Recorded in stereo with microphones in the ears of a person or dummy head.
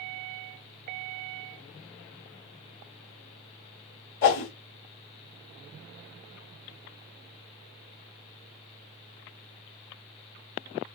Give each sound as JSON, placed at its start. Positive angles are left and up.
{"t": 4.2, "sound": "a whoosh", "side_deg": 40, "distance_m": 1.1}